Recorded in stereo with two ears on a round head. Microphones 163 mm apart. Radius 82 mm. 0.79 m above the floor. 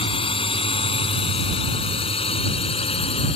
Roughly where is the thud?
I don't hear a thud.